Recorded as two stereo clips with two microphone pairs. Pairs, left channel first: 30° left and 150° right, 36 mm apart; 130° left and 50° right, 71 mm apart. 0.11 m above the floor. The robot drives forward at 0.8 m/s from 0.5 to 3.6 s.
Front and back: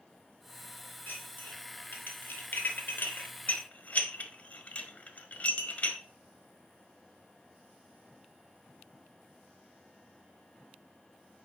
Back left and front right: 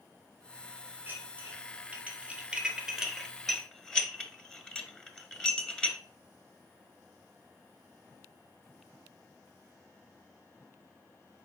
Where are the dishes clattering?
15° left, 2.5 m; by 6.0 s 55° left, 1.1 m.